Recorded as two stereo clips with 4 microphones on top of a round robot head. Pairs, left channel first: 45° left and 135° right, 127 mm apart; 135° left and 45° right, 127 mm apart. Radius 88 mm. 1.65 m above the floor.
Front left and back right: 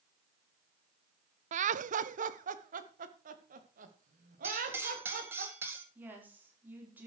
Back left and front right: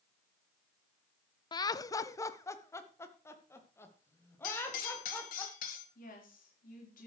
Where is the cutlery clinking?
150° left, 1.9 m.